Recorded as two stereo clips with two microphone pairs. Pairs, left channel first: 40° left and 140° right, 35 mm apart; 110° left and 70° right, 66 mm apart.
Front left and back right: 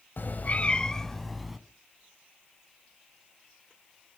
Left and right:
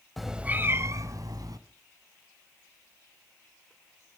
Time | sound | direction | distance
0.2 | a cat meowing | 25° left | 0.7 m